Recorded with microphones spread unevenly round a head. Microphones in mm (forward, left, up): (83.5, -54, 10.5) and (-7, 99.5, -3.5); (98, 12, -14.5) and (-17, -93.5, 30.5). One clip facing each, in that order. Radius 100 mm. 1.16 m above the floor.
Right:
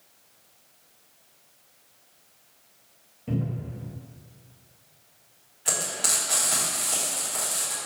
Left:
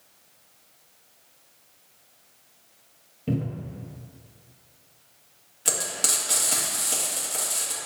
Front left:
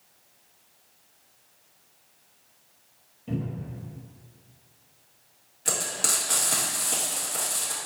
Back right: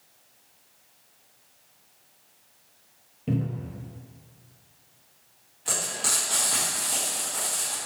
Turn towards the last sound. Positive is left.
turn(degrees=90)